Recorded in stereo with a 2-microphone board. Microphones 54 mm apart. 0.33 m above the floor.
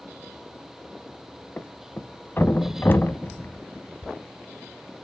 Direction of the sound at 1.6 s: 40° left (ahead or behind).